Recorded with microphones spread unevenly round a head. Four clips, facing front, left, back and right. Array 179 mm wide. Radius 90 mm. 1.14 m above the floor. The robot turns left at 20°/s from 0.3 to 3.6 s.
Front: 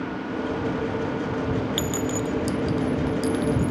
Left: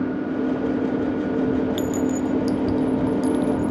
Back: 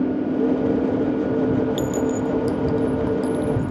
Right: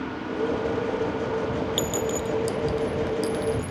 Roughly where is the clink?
Ahead left.